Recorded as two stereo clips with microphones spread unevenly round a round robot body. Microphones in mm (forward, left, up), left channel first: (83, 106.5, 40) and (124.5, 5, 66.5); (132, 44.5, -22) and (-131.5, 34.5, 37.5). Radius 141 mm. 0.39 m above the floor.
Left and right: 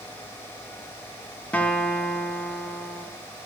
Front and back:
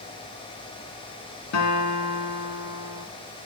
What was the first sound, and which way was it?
A guitar, 30° left.